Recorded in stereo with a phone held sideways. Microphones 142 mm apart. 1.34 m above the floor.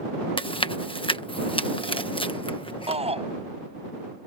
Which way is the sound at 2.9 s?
45° right (ahead or behind).